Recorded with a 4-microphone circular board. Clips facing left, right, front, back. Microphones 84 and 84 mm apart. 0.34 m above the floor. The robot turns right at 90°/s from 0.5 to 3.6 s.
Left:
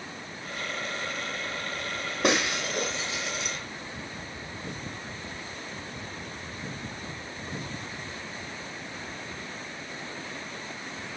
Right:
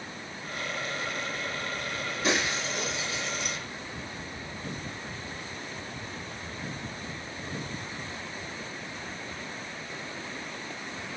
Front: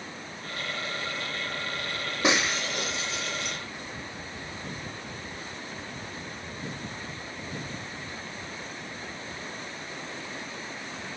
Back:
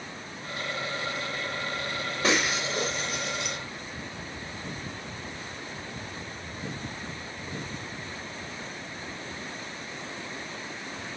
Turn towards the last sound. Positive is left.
turn(degrees=-160)